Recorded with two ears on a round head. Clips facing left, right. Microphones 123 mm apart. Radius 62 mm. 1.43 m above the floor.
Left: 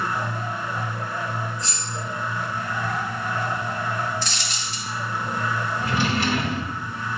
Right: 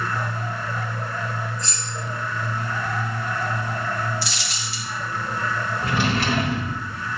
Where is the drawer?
50° right (ahead or behind), 1.7 m.